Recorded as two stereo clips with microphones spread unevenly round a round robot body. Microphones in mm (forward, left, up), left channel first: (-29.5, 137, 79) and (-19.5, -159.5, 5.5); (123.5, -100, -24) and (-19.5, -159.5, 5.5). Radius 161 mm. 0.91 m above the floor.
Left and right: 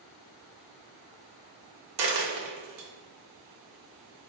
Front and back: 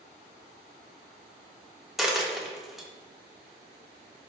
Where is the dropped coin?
80° right, 0.6 m.